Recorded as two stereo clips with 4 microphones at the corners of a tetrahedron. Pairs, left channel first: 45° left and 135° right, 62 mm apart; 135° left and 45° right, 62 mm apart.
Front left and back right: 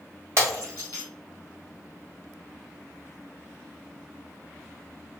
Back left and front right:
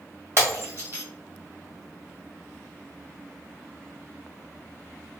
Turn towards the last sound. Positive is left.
turn(degrees=-95)